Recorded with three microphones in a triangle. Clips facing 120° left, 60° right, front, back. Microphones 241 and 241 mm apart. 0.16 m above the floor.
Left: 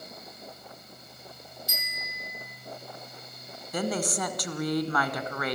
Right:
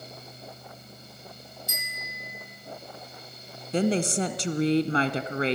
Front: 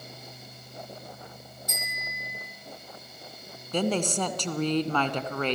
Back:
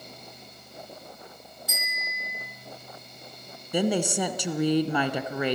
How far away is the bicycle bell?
About 4 m.